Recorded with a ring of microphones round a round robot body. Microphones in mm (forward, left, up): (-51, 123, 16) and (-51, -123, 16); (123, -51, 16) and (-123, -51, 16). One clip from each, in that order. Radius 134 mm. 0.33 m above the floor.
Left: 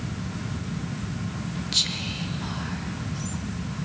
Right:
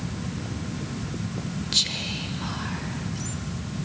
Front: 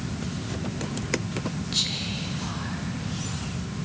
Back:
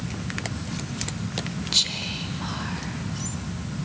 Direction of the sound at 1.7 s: Straight behind.